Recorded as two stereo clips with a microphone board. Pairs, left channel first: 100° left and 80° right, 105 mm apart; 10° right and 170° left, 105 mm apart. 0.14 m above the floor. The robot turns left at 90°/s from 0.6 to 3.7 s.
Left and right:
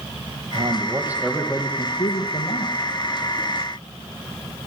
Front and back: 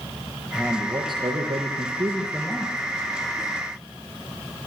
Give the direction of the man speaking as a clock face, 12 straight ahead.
4 o'clock.